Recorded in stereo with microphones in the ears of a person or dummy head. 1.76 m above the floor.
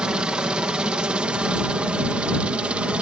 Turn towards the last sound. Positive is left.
turn(degrees=-5)  # may be behind; listen again after turning